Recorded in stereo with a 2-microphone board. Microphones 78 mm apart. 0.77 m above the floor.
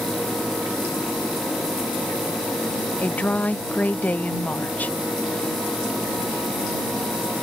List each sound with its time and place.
3.0 s a woman speaking: 20° left (ahead or behind)